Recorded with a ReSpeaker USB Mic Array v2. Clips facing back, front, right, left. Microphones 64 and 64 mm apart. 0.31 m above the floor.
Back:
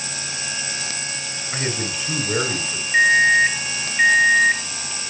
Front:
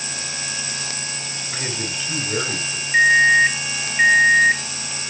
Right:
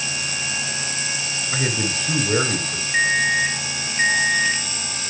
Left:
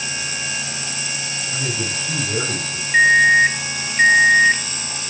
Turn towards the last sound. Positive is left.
turn(degrees=85)